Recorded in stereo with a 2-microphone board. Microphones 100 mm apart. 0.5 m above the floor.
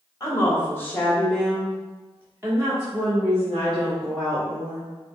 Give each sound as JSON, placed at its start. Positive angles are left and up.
{"t": 0.2, "sound": "a woman speaking", "side_deg": 30, "distance_m": 1.2}